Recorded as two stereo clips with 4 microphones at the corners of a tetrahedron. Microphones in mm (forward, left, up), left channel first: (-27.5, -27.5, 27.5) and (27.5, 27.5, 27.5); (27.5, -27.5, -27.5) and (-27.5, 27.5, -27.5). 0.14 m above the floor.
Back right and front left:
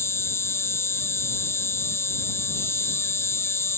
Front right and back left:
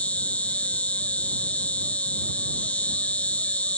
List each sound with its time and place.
0.0 s an insect: 105° right